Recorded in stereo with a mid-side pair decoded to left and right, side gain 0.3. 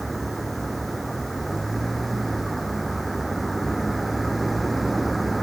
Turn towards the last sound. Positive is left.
turn(degrees=-20)